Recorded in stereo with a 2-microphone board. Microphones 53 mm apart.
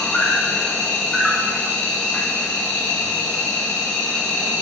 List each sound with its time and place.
0.0 s an insect: 15° left (ahead or behind), 4 m